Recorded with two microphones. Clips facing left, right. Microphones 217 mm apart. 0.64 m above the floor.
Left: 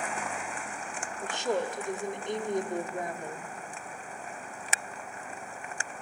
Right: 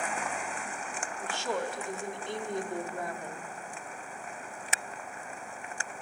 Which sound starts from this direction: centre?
A woman speaking, at 1.2 s.